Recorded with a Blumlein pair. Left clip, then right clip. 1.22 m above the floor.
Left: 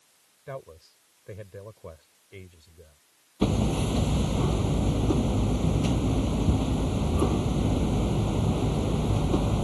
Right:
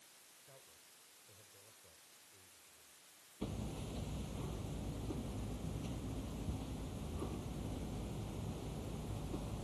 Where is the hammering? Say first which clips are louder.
Left 19 dB; 50° left.